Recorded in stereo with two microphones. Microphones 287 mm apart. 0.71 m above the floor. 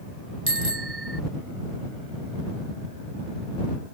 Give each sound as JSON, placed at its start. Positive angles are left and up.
{"t": 0.5, "sound": "a bicycle bell", "side_deg": -40}